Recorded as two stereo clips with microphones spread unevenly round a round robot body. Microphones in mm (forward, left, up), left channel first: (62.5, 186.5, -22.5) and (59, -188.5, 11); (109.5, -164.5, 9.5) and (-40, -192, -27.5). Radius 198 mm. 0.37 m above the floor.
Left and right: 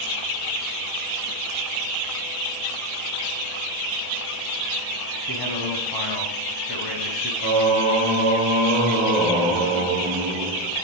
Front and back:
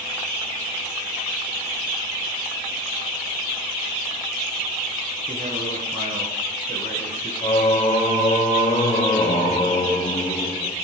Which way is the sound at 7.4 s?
25° right.